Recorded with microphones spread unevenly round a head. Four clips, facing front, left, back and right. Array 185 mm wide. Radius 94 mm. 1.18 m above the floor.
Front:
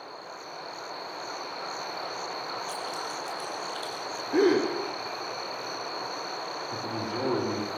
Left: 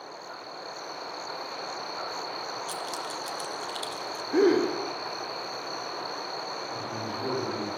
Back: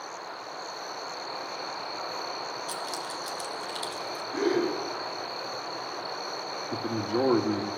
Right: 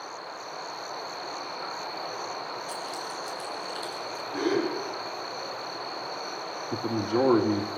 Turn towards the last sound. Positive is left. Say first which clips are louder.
# right 12 dB, back 6 dB
turn(degrees=-115)